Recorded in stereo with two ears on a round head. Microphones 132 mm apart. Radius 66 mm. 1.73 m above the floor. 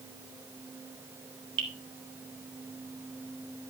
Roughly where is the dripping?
Right.